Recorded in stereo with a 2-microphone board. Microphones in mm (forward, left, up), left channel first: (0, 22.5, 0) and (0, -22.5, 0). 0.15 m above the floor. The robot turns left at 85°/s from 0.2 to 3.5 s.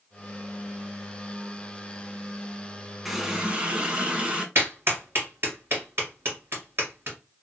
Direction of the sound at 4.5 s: 55° right (ahead or behind).